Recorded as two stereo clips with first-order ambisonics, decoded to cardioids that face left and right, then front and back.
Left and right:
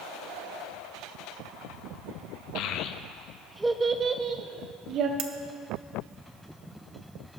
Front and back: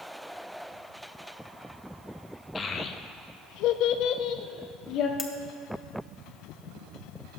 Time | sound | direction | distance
2.5 | a child speaking | 70° left | 0.6 m
5.2 | cutlery clinking | 70° right | 0.7 m